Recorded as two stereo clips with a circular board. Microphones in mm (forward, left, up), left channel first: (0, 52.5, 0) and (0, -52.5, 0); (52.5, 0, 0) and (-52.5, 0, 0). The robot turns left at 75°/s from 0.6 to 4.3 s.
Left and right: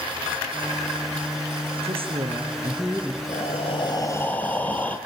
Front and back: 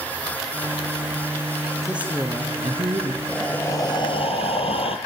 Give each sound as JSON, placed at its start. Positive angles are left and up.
{"t": 1.8, "sound": "a woman speaking", "azimuth_deg": -95, "distance_m": 3.0}
{"t": 3.2, "sound": "breathing", "azimuth_deg": 95, "distance_m": 2.0}